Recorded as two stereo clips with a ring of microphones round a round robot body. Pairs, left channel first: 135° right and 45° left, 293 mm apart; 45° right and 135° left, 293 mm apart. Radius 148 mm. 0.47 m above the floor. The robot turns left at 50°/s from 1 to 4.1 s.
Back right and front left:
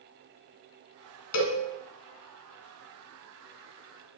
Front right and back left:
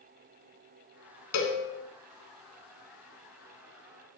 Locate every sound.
1.3 s a cowbell: 90° right, 1.6 m; by 1.6 s 105° right, 1.6 m